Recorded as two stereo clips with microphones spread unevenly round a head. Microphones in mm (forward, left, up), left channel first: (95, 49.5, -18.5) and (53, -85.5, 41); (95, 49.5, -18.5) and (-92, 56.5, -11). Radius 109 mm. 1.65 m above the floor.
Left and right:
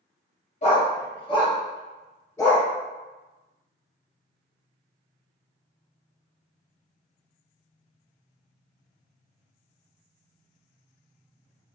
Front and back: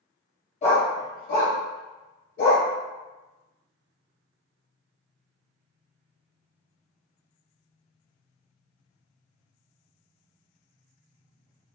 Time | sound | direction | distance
0.6 | a dog barking | 30° left | 1.3 m